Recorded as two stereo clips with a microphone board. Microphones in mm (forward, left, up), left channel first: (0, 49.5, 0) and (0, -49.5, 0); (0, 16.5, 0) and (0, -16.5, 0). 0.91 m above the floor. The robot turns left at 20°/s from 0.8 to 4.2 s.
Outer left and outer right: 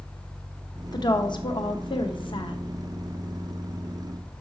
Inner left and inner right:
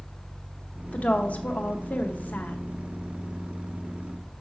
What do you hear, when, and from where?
0.9 s a woman speaking: 120° left, 0.7 m; by 2.6 s 90° left, 0.7 m